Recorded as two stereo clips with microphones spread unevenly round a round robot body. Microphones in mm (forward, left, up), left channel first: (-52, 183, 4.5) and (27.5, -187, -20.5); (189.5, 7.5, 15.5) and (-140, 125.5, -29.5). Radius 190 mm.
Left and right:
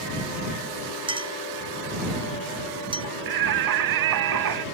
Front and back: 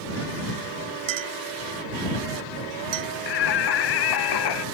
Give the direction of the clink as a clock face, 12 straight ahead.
5 o'clock.